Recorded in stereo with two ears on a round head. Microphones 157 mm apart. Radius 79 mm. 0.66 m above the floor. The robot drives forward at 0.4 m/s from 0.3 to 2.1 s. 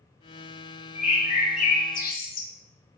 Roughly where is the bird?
Left.